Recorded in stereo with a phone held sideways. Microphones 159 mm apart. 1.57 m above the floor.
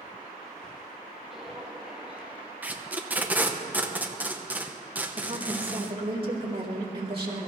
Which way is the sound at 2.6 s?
10° right (ahead or behind).